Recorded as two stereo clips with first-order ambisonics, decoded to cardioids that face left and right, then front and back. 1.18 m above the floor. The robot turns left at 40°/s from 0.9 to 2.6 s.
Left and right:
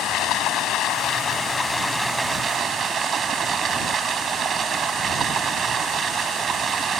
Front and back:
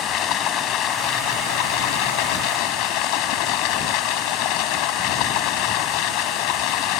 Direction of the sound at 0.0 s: 45° left.